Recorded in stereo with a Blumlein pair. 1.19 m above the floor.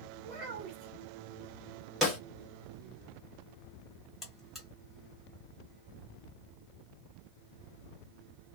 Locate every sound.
0.2 s a child speaking: 30° right, 1.2 m
2.0 s a snare drum: 5° left, 1.2 m
4.2 s a buzzer: 5° left, 1.8 m